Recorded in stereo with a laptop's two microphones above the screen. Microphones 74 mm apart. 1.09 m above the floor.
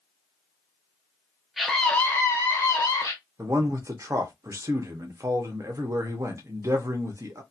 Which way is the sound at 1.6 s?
Centre (ahead or behind).